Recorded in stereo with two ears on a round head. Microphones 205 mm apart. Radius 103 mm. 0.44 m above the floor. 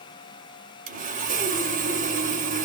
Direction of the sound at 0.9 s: 35° right (ahead or behind).